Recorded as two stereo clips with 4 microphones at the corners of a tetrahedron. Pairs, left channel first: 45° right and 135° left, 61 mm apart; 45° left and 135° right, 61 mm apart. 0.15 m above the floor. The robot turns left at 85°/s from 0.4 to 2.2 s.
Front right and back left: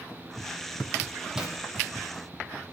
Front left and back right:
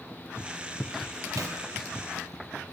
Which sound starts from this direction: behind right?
A zipper, at 1.4 s.